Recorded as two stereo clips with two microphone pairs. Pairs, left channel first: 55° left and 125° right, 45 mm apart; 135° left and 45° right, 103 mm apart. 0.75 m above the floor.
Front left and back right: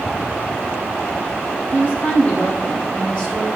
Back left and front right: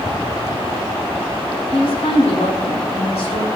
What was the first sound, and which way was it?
A woman speaking, 105° left.